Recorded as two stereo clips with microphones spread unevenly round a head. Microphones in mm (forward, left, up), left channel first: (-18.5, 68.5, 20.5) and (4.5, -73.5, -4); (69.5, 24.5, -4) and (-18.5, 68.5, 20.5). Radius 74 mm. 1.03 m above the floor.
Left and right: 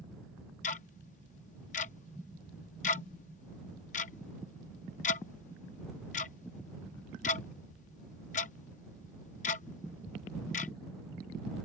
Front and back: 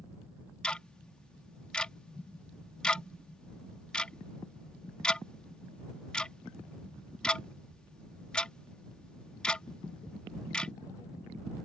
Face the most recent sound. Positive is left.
turn(degrees=60)